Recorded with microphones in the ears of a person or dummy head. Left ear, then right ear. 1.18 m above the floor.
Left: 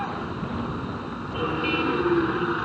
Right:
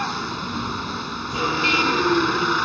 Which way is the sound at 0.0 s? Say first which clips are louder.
Right 5 dB; 80° right.